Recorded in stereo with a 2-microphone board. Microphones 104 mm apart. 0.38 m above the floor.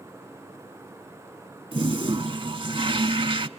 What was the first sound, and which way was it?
A toilet flushing, 55° right (ahead or behind).